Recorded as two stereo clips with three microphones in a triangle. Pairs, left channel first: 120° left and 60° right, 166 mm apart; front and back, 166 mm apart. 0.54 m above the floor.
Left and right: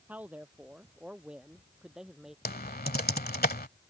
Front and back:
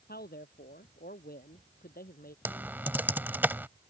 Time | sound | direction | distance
0.1 | a man speaking | 20° left | ?
2.5 | typing on a keyboard | 100° left | ?